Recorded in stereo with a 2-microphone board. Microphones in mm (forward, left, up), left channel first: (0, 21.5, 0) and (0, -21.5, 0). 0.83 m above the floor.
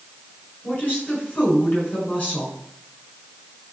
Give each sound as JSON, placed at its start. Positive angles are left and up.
{"t": 0.6, "sound": "a woman speaking", "side_deg": 30, "distance_m": 8.0}